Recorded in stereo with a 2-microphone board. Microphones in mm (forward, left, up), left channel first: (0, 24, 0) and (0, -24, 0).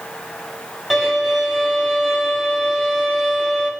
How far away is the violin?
About 5.5 m.